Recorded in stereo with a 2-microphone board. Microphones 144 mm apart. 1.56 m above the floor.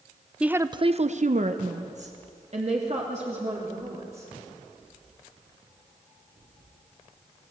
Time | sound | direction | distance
0.4 | a woman speaking | 5° right (ahead or behind) | 0.7 m